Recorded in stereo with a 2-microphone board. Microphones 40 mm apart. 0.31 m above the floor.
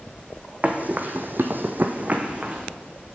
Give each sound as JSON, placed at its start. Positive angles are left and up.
{"t": 0.6, "sound": "running footsteps", "side_deg": -35, "distance_m": 0.7}